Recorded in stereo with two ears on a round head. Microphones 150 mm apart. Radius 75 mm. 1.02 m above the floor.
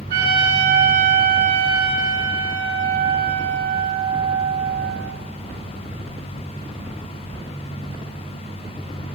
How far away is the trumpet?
About 4 m.